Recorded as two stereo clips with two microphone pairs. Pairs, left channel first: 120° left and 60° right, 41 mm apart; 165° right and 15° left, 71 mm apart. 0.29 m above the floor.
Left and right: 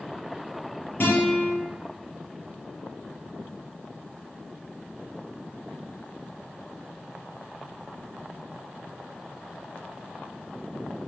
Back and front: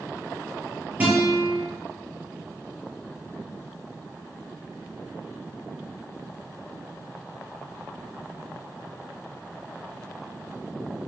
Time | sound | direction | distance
1.0 | a guitar | 85° left | 5.5 m